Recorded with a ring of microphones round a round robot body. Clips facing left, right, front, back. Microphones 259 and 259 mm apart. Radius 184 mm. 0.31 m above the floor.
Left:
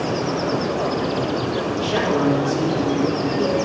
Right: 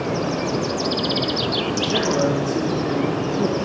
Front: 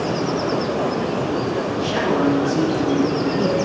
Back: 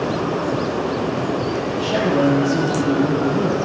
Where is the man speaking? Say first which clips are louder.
Left 1 dB, back 2 dB; 155° right, 9.5 m.